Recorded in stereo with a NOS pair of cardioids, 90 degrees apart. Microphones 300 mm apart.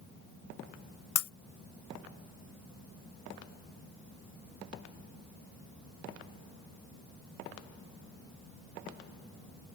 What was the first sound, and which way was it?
Breaking glass, 65° left.